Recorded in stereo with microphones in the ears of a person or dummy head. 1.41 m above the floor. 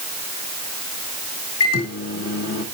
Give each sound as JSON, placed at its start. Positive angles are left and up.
{"t": 1.6, "sound": "a microwave", "side_deg": 70, "distance_m": 2.5}